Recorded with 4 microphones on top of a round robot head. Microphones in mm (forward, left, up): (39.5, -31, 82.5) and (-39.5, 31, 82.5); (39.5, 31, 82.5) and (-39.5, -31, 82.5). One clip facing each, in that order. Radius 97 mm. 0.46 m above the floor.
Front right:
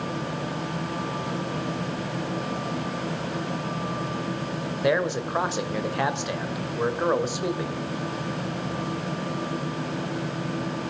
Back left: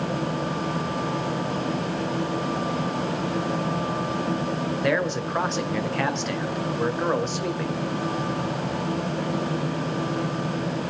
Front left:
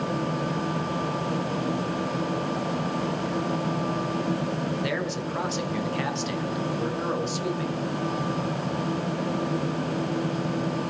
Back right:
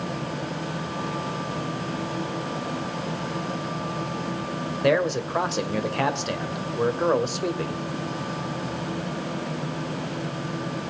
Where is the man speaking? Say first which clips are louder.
Front right 2 dB, back right 7 dB; 115° right, 2.5 m.